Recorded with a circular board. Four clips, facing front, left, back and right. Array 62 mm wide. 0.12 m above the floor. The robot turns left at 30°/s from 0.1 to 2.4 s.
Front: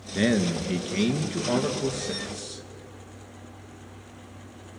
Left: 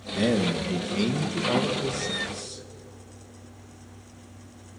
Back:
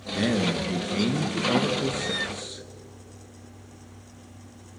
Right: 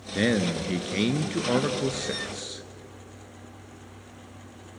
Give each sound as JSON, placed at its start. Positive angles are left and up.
{"t": 0.1, "sound": "a man speaking", "azimuth_deg": -55, "distance_m": 1.8}